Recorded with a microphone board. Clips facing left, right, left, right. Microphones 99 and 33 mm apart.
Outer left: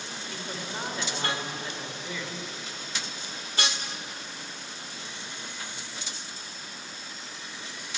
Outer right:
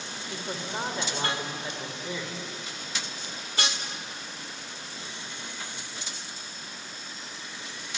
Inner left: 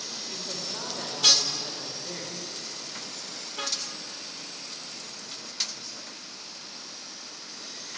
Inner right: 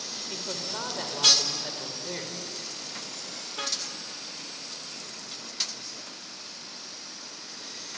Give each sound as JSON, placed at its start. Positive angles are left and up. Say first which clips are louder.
{"t": 0.3, "sound": "a man speaking", "louder": "outer right 3 dB, inner right 3 dB", "side_deg": -25, "distance_m": 4.0}